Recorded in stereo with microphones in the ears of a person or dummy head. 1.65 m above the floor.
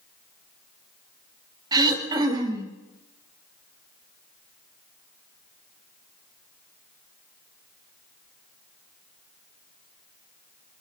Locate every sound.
1.7 s throat clearing: 20° right (ahead or behind), 3 m